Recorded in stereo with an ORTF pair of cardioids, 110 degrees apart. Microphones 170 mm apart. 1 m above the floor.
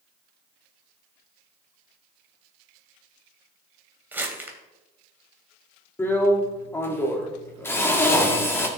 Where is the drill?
15° left, 1.8 m.